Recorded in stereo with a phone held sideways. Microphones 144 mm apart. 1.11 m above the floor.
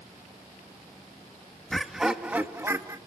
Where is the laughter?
5° left (ahead or behind), 2 m; by 3.0 s 20° right (ahead or behind), 2 m.